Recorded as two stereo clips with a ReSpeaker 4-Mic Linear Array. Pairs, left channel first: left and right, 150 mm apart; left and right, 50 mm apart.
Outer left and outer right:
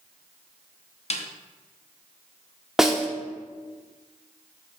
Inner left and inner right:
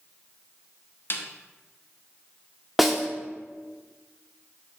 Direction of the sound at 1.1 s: 50° left (ahead or behind).